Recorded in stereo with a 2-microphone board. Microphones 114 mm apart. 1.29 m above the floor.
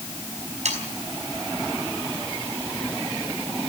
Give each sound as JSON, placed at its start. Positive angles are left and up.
{"t": 0.7, "sound": "sawing", "side_deg": -80, "distance_m": 5.0}